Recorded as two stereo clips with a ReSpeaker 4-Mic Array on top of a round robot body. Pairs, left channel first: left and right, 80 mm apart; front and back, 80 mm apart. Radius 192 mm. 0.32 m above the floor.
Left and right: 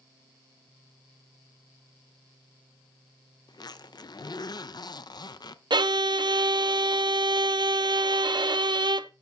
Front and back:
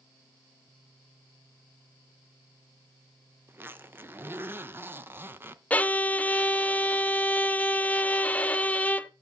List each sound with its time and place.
3.5 s a zipper: 120° left, 0.7 m
5.7 s a violin: 70° right, 0.7 m